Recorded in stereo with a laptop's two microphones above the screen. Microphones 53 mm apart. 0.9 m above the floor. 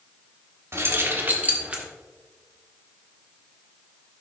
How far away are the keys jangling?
About 1.4 m.